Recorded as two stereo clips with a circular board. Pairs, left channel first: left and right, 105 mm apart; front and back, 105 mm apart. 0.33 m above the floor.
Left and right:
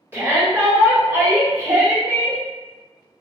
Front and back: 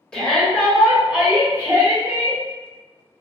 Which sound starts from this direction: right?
A shout, at 0.1 s.